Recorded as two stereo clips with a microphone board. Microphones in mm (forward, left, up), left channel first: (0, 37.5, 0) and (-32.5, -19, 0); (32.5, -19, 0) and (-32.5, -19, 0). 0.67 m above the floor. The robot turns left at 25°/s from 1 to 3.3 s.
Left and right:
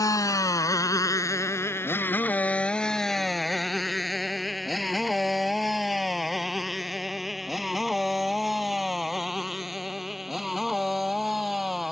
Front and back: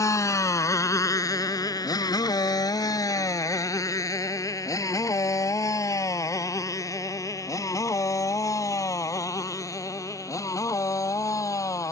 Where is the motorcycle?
35° left; by 11.9 s 35° right.